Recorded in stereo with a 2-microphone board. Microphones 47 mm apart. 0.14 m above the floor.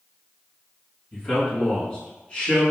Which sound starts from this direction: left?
A man speaking, at 1.1 s.